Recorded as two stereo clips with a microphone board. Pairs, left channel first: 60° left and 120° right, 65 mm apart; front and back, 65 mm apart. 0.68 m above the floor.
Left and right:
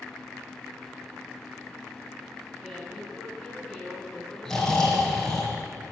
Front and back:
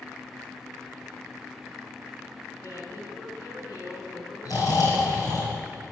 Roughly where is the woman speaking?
Ahead right.